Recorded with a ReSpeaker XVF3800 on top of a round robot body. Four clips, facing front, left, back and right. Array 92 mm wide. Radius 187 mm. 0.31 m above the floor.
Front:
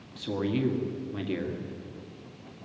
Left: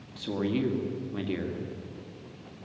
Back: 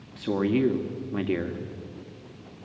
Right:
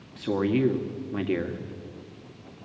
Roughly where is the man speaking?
Behind right.